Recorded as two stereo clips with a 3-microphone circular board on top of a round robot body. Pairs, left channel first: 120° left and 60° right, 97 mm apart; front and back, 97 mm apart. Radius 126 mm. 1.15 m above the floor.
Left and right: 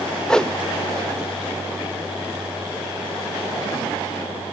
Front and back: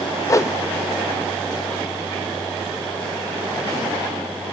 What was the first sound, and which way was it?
A whoosh, 40° left.